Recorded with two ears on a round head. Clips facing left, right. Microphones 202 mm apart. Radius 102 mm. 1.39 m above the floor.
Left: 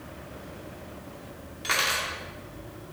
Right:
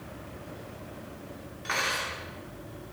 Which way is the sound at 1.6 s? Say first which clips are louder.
Left 2 dB; 50° left (ahead or behind).